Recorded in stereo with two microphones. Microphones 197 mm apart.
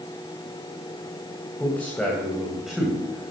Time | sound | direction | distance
1.6 | a man speaking | 10° left (ahead or behind) | 3 m